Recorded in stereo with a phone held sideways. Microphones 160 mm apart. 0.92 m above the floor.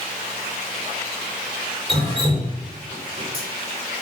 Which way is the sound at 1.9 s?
35° right (ahead or behind).